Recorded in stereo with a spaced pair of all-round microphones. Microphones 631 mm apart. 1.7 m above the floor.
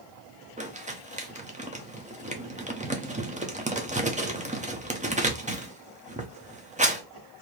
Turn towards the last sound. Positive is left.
turn(degrees=-15)  # may be behind; listen again after turning